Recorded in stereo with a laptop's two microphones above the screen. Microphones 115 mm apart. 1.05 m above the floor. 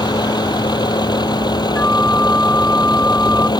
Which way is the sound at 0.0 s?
35° left (ahead or behind).